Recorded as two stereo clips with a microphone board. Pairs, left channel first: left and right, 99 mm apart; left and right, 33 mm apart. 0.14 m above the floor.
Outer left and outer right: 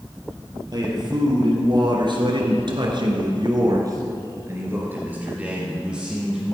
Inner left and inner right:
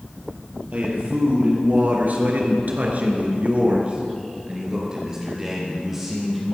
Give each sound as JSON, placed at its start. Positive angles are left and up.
{"t": 0.7, "sound": "a man speaking", "side_deg": -45, "distance_m": 4.0}